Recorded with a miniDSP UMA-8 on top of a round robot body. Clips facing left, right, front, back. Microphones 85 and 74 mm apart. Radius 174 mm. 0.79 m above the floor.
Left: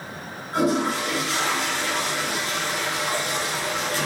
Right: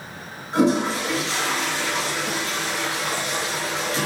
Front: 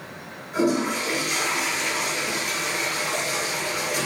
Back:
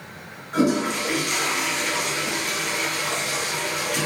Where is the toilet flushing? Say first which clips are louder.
Right 2 dB, back 1 dB; 155° right, 5.5 m.